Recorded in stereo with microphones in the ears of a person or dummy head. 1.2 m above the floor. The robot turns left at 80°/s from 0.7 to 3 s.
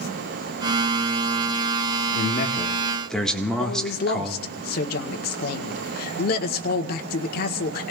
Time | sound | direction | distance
2.1 | a man speaking | 75° left | 1.6 m
3.6 | a man speaking | 55° left (ahead or behind) | 1.4 m